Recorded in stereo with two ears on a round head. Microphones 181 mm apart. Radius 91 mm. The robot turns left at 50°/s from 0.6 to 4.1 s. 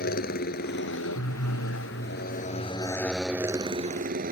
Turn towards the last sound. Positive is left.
turn(degrees=-45)